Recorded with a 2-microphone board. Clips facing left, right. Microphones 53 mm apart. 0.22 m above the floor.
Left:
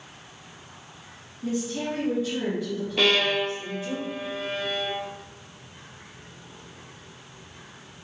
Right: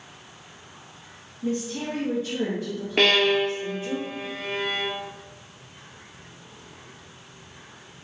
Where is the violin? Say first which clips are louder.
Right 3 dB; 60° right (ahead or behind), 0.9 m.